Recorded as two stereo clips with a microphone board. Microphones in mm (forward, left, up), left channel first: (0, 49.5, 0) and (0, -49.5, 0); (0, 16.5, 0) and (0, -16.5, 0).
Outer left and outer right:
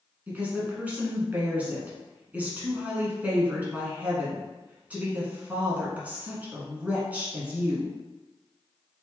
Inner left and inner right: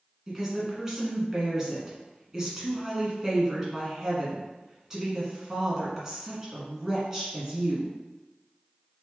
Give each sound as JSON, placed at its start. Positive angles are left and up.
{"t": 0.3, "sound": "a woman speaking", "side_deg": -15, "distance_m": 1.4}